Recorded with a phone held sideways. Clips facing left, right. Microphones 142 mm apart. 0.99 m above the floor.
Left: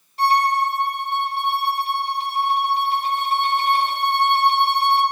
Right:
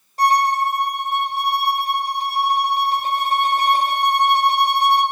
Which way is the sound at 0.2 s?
45° right (ahead or behind).